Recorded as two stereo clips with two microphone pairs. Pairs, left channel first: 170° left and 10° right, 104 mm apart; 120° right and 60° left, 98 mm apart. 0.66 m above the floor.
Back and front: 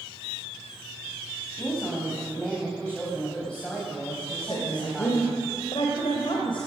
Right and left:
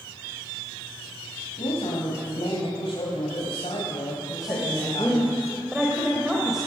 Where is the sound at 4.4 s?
140° left, 3.5 m.